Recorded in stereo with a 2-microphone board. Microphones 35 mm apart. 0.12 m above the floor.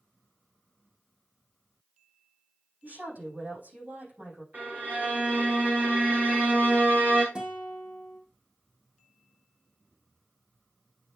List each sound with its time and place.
2.8 s a woman speaking: 50° right (ahead or behind), 6.5 m
4.5 s a violin: 55° right (ahead or behind), 2.5 m
7.3 s a guitar: 25° right (ahead or behind), 2.5 m